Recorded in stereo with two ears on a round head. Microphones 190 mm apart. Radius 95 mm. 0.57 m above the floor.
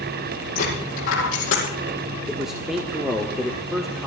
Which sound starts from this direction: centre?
A man speaking, at 2.3 s.